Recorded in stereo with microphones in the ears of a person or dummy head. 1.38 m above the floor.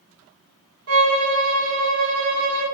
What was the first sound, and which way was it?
A violin, 80° right.